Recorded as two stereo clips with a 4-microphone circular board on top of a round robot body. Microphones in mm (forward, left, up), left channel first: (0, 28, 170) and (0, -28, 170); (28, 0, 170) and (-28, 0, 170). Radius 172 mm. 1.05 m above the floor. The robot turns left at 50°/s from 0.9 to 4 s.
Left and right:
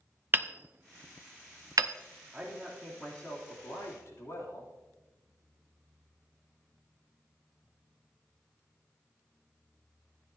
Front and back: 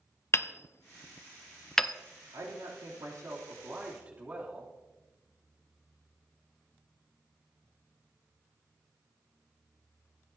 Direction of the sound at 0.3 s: 40° right.